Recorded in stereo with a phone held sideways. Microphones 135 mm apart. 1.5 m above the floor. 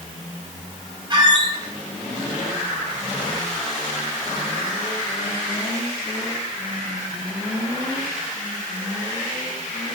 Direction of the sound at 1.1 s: 35° right (ahead or behind).